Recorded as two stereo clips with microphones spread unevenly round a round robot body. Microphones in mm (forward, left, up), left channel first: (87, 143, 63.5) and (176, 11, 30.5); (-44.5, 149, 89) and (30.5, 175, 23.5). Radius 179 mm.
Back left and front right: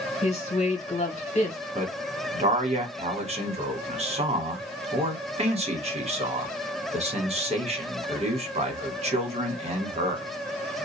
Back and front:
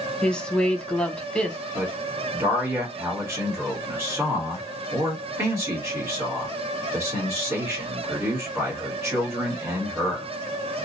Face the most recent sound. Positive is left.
turn(degrees=-15)